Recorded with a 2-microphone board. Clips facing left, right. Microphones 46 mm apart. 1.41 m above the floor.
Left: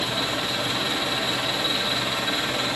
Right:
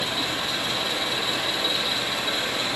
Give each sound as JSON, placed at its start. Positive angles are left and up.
{"t": 0.0, "sound": "an engine running", "side_deg": 25, "distance_m": 10.0}